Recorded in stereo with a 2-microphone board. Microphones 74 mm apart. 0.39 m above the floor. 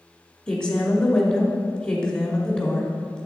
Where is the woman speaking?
10° left (ahead or behind), 1.0 m.